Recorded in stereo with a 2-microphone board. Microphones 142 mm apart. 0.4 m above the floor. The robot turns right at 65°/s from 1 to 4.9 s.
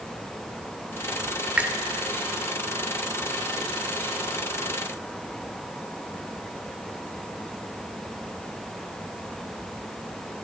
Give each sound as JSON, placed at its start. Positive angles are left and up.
{"t": 1.6, "sound": "a finger snap", "side_deg": -10, "distance_m": 0.6}